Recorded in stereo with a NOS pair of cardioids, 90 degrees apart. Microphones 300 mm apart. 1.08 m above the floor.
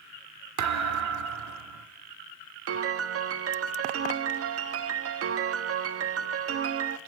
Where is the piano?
50° right, 1.2 m.